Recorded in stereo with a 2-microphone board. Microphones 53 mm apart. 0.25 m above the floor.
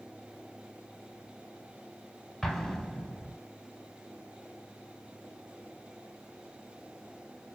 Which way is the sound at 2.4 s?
10° left (ahead or behind).